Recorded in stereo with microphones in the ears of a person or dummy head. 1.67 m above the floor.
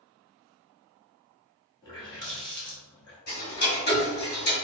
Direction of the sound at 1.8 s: 20° left (ahead or behind).